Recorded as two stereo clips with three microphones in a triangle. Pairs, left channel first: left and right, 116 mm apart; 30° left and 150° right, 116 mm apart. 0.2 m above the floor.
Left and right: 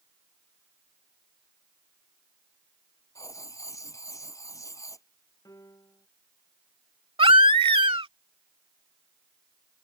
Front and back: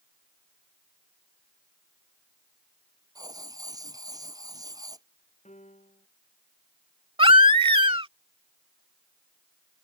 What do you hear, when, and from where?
3.1 s writing: 150° left
5.5 s a piano: 25° left
7.2 s a baby crying: 120° right